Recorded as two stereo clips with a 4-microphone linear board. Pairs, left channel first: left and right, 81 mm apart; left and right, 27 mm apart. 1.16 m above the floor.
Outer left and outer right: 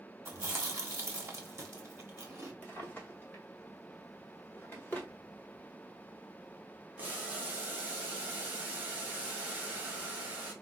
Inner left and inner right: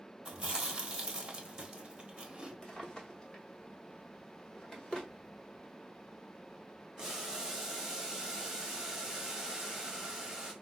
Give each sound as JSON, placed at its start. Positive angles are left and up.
{"t": 0.2, "sound": "chewing", "side_deg": -35, "distance_m": 0.8}
{"t": 2.6, "sound": "a drawer", "side_deg": 25, "distance_m": 0.9}
{"t": 5.1, "sound": "whispering", "side_deg": -15, "distance_m": 0.7}
{"t": 7.0, "sound": "boiling", "side_deg": -20, "distance_m": 1.0}